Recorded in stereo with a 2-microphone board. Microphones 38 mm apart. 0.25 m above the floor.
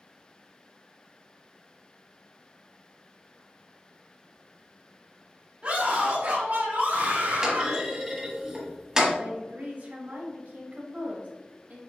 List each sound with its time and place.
5.6 s a scream: 35° right (ahead or behind), 1.3 m; by 7.8 s 55° right (ahead or behind), 3.5 m
7.4 s a clunk: 15° right (ahead or behind), 1.5 m
9.2 s a woman speaking: 55° right (ahead or behind), 1.7 m